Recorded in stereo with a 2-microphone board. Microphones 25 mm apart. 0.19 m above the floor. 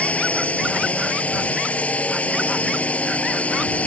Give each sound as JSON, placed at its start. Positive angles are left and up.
{"t": 0.0, "sound": "a drone", "side_deg": 60}